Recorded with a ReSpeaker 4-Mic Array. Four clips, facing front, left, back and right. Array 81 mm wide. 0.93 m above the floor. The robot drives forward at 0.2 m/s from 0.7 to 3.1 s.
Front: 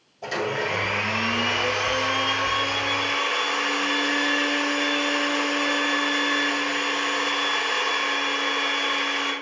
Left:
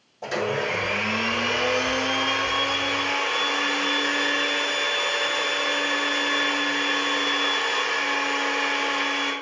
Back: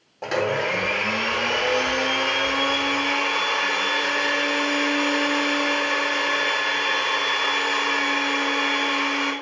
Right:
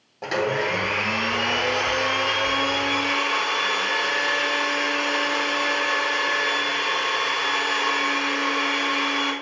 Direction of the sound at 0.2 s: 145° right.